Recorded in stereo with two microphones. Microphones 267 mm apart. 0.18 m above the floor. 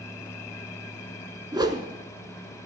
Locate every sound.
1.5 s a whoosh: 15° right (ahead or behind), 0.8 m